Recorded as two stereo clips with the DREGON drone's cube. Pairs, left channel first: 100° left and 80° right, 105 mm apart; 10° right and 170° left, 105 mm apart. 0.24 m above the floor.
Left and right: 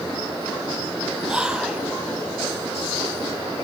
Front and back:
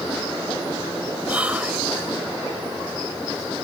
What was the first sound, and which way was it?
Whispering, 140° right.